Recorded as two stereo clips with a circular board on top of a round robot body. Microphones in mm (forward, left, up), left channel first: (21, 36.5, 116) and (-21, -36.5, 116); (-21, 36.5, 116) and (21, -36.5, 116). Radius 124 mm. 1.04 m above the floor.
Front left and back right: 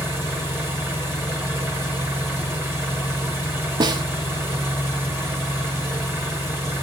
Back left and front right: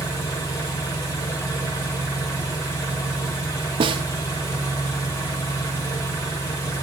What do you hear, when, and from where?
0.0 s an engine running: straight behind, 3 m
3.8 s a snare drum: 80° right, 0.7 m